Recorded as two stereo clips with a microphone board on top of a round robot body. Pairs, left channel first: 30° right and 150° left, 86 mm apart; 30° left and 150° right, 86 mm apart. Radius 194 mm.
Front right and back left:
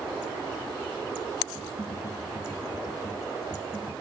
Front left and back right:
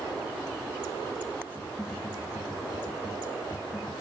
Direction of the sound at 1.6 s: 85° left.